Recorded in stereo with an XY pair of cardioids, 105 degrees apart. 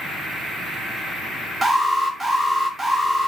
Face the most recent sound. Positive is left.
turn(degrees=-30)